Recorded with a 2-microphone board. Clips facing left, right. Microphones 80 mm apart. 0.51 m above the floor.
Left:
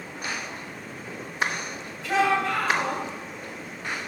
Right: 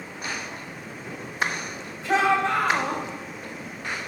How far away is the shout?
About 3 m.